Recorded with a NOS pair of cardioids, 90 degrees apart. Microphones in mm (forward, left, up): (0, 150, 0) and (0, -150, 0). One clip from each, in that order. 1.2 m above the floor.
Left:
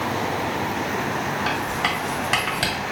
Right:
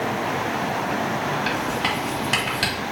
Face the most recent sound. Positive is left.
turn(degrees=5)